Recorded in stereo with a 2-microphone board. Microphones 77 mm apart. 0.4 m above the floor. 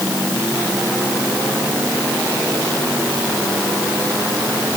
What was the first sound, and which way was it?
Only background noise.